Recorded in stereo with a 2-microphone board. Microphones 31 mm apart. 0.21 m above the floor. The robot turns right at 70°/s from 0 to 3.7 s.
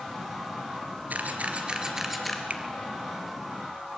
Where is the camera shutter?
70° right (ahead or behind), 3 m; by 2.4 s 15° left (ahead or behind), 3 m.